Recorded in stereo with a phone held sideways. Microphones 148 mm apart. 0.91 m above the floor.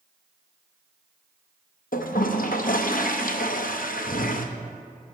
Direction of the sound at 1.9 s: 70° left (ahead or behind).